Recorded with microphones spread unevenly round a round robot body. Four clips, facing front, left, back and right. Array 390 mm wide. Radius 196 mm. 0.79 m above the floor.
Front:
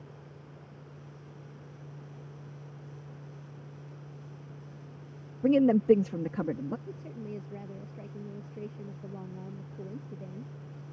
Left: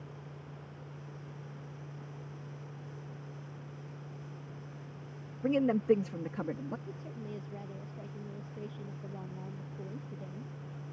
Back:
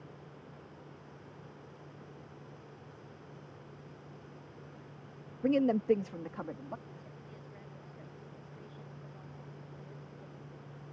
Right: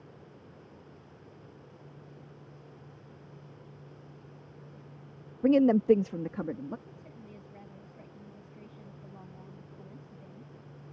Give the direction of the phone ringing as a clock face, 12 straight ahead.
No phone ringing in this recording.